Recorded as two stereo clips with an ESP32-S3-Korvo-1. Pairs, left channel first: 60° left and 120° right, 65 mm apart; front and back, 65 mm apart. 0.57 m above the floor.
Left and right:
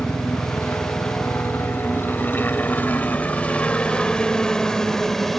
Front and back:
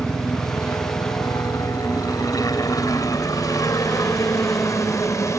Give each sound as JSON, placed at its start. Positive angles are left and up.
{"t": 0.0, "sound": "a helicopter", "azimuth_deg": 20}